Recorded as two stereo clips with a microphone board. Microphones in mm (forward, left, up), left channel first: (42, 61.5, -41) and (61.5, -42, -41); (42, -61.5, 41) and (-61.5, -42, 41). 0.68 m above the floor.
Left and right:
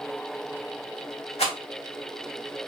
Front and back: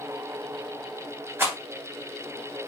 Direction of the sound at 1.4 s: 100° left.